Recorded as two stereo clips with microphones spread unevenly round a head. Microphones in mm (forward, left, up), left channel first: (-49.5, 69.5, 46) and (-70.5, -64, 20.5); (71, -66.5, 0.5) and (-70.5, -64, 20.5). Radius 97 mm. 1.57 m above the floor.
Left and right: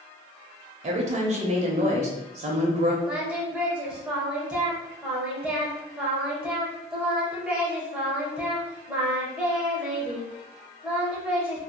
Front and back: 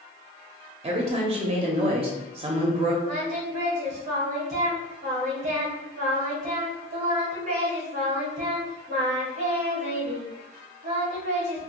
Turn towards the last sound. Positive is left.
turn(degrees=170)